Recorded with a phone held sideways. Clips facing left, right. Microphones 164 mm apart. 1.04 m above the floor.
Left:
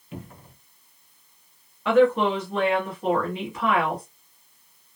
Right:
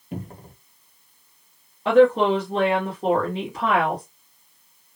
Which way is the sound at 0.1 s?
40° right (ahead or behind).